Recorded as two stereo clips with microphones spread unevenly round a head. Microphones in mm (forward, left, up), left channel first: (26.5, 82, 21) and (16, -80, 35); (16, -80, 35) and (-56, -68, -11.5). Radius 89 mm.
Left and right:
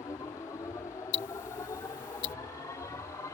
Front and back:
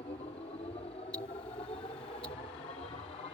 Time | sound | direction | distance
0.0 | a machine running | 15° left | ?
1.1 | ticking | 75° left | ?